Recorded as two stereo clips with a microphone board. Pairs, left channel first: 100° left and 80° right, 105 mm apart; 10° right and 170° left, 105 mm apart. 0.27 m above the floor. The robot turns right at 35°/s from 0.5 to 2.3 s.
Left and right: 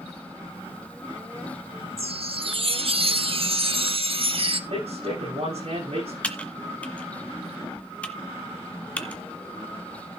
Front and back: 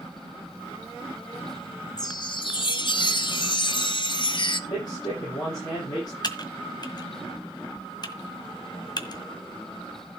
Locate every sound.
2.0 s a chime: 65° right, 0.9 m; by 4.6 s 55° right, 0.9 m
4.7 s a man speaking: 65° right, 9.5 m
6.2 s typing on a keyboard: 25° left, 1.6 m